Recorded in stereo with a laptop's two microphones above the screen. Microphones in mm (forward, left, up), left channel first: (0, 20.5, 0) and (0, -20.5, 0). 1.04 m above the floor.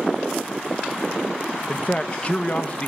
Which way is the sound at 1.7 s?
30° left (ahead or behind).